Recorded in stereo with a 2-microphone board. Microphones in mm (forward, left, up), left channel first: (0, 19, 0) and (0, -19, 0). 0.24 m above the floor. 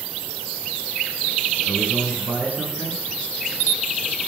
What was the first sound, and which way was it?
A man speaking, 45° right (ahead or behind).